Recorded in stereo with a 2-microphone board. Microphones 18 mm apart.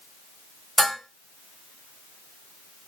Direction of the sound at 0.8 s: Centre (ahead or behind).